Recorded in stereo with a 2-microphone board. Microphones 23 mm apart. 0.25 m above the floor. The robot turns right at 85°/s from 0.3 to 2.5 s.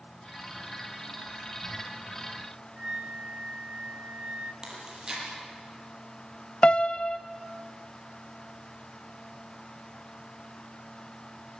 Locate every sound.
2.8 s a flute: 45° right (ahead or behind), 2.0 m
4.6 s chewing: 30° right (ahead or behind), 8.5 m
6.6 s a piano: 45° left (ahead or behind), 0.7 m